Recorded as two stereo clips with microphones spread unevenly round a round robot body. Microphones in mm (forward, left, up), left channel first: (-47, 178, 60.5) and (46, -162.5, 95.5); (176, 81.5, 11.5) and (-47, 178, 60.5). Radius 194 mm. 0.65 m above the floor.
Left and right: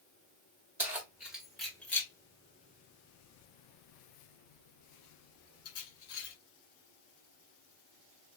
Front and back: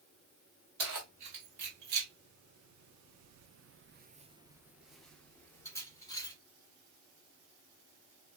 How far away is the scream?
I don't hear a scream.